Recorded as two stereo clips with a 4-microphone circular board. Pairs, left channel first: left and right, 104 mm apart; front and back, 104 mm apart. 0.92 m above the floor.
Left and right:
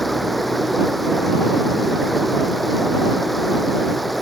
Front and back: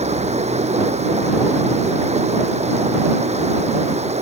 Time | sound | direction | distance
0.0 | running water | straight behind | ?